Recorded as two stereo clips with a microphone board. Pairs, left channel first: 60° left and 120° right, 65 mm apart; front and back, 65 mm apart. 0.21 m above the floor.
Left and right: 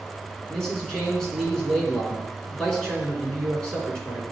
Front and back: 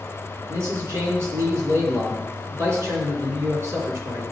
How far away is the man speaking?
About 3 m.